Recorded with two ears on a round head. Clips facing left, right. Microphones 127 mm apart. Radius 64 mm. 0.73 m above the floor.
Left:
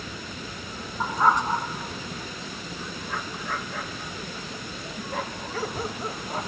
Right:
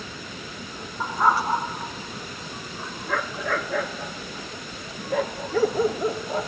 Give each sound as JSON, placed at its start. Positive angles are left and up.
{"t": 1.0, "sound": "a dog barking", "side_deg": 5}